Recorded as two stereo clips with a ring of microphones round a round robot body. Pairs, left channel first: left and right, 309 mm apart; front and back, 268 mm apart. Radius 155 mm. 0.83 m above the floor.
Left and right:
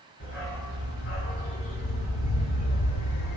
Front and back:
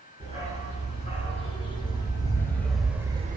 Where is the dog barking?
65° left, 5 m; by 3.4 s 125° left, 0.9 m.